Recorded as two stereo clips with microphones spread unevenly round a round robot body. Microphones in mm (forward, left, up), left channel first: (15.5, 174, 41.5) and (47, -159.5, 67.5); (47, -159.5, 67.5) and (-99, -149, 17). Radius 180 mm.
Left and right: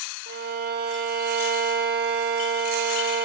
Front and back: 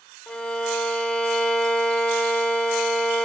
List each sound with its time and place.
0.3 s a violin: 120° right, 0.7 m